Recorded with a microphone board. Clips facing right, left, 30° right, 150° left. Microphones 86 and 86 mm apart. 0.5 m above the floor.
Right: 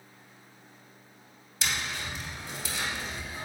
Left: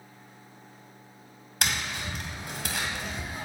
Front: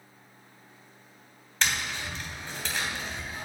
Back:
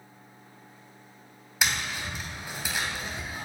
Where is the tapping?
70° left, 2.5 m.